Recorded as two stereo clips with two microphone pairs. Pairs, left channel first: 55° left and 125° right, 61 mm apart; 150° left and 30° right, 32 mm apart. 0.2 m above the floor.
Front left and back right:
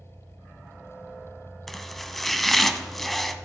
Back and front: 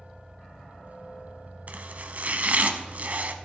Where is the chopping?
25° right, 0.5 m.